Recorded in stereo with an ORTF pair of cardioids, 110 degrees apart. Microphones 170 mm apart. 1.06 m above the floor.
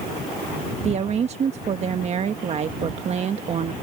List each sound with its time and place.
0.8 s a woman speaking: 40° right